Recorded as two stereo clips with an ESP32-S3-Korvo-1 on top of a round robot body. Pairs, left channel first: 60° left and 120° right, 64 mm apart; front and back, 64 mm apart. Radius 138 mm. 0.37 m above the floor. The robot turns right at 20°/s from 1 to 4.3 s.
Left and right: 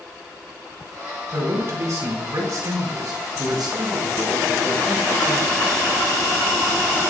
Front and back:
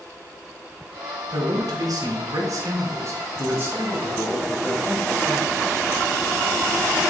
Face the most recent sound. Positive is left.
turn(degrees=-110)